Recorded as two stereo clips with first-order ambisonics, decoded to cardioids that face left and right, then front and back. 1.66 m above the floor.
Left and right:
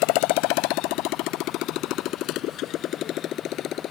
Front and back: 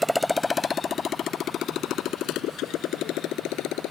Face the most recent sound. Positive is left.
turn(degrees=40)